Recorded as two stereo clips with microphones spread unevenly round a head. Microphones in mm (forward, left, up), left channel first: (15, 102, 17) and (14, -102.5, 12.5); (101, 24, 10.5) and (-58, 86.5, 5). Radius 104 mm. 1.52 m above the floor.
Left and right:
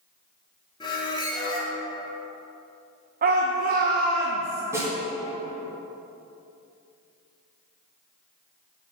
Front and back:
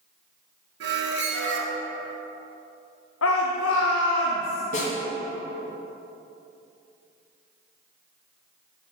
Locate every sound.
0.8 s a squeak: 160° left, 1.0 m
3.2 s a shout: 40° right, 0.7 m
4.7 s a snare drum: 15° right, 1.9 m